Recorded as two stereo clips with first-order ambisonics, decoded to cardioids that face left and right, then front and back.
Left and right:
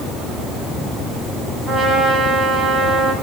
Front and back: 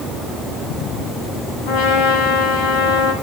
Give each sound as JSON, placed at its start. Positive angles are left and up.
{"t": 1.7, "sound": "a trumpet", "azimuth_deg": 0, "distance_m": 9.5}